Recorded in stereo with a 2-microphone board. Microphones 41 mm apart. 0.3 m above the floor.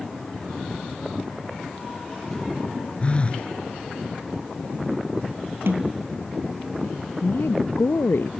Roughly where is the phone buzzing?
Left.